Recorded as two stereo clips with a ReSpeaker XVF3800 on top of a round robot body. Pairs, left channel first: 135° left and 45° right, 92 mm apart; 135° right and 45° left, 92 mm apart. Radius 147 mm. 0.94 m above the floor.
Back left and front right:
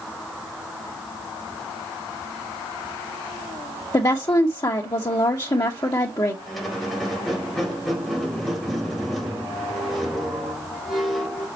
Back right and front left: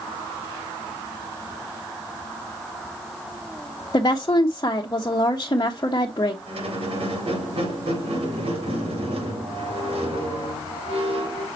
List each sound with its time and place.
3.9 s a woman speaking: straight behind, 1.2 m
6.5 s a squeak: 45° left, 4.5 m